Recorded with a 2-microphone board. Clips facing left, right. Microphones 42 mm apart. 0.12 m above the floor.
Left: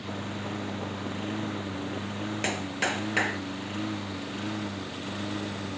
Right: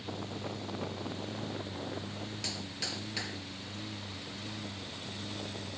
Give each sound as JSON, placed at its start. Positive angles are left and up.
{"t": 0.0, "sound": "a lawn mower", "side_deg": 50}
{"t": 2.4, "sound": "a clap", "side_deg": 50}